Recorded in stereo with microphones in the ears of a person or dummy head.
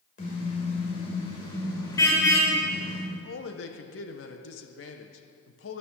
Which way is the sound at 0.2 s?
35° left (ahead or behind).